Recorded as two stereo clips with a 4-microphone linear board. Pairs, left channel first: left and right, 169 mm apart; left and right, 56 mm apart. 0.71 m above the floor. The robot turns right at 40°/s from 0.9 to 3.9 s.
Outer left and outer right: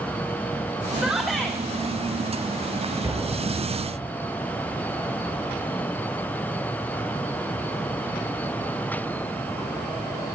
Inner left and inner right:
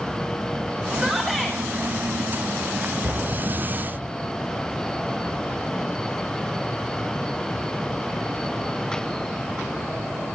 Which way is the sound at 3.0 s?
15° right.